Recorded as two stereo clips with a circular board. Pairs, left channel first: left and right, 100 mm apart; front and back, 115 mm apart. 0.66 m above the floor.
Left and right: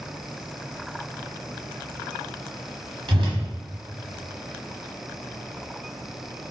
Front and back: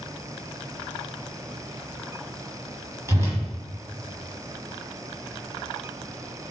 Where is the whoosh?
115° right, 1.3 m.